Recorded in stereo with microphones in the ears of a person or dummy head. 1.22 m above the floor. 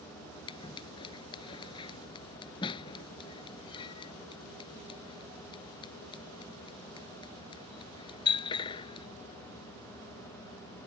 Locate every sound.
0.5 s scissors: 25° left (ahead or behind)